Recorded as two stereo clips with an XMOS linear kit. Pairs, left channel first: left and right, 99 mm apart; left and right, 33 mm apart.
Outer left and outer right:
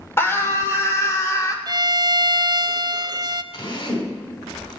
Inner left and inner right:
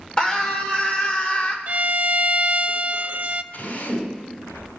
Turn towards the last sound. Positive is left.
turn(degrees=60)  # may be behind; listen again after turning